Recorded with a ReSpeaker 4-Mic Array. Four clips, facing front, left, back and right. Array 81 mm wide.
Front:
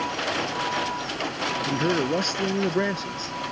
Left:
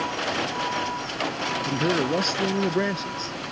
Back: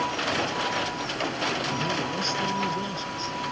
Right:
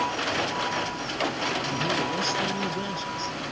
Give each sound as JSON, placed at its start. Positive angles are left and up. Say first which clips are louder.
{"t": 1.7, "sound": "a man speaking", "louder": "left 8 dB, front 5 dB", "azimuth_deg": 40}